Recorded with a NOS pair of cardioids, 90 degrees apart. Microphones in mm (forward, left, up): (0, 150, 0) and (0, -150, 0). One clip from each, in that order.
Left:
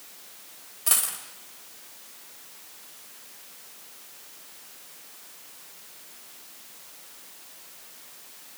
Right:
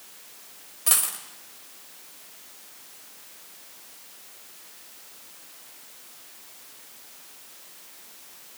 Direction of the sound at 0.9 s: 5° right.